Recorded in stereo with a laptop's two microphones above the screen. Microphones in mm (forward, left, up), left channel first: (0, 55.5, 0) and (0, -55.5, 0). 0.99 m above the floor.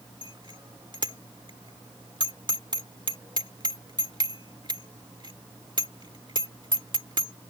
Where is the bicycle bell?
45° right (ahead or behind).